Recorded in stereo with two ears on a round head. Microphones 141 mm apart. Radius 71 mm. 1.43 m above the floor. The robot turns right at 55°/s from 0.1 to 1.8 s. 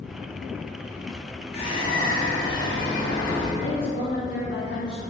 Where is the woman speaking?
65° left (ahead or behind), 0.7 m.